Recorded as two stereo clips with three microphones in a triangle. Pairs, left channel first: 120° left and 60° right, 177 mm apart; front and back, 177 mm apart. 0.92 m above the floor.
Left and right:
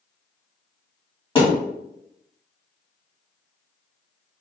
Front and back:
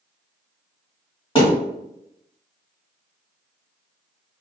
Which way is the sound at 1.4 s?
60° left.